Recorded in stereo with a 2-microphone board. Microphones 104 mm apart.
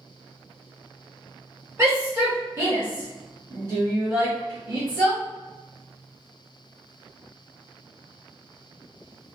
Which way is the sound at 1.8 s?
25° right (ahead or behind).